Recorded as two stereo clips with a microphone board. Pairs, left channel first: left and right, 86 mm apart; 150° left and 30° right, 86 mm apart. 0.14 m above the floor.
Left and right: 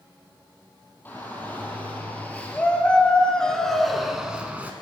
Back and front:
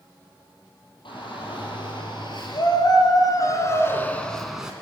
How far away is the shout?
About 5 m.